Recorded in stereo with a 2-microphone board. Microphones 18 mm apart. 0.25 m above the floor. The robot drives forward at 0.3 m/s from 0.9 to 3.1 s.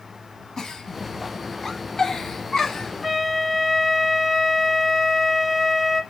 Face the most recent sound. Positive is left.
turn(degrees=-10)  # may be behind; listen again after turning